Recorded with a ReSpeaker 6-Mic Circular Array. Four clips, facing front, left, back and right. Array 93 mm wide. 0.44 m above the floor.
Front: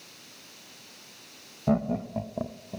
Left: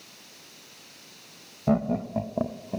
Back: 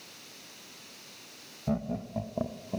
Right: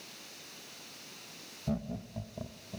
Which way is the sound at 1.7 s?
60° left.